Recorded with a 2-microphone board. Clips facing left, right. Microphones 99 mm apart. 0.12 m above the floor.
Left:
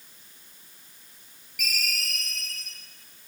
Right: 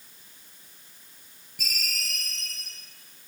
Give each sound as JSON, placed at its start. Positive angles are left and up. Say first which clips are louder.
{"t": 1.6, "sound": "a ringtone", "louder": "left 4 dB", "side_deg": -30, "distance_m": 8.0}